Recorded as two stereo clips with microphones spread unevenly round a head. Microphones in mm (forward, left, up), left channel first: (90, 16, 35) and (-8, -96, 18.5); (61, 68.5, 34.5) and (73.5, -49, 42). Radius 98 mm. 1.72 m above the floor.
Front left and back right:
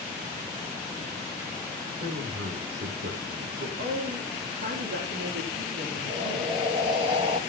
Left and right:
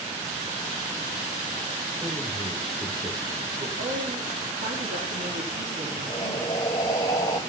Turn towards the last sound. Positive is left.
turn(degrees=160)